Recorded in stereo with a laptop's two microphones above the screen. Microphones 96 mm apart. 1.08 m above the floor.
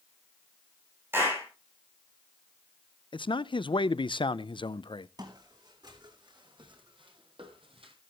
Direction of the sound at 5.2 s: 45° right (ahead or behind).